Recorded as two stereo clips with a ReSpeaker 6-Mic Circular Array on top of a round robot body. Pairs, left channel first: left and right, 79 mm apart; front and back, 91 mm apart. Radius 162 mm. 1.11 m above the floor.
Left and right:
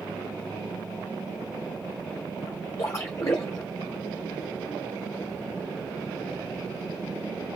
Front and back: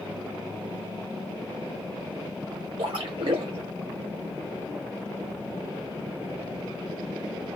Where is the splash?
145° left, 1.2 m.